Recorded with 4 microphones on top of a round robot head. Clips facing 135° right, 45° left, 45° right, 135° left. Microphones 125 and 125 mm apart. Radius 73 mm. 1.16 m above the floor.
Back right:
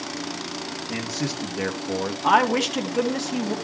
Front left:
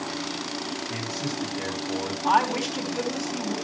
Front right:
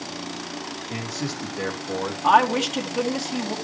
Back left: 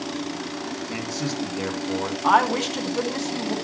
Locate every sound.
0.9 s a man speaking: 160° right, 2.5 m; by 2.1 s 130° right, 1.7 m
2.2 s a woman speaking: 125° right, 1.7 m